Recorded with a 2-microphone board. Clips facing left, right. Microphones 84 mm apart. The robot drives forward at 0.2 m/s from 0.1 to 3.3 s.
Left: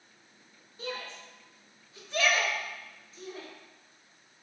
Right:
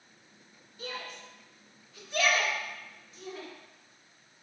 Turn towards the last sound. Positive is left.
turn(degrees=30)  # may be behind; listen again after turning